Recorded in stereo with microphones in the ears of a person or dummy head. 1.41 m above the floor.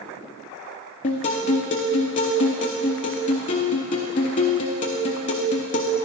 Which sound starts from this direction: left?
A guitar, at 1.0 s.